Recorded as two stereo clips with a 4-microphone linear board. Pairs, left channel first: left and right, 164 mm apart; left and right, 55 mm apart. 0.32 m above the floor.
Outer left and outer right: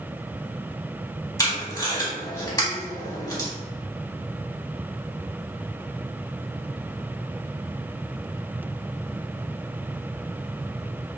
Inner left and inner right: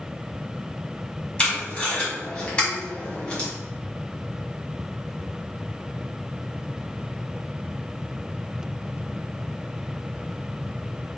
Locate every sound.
1.4 s tape being pulled: 20° left (ahead or behind), 1.3 m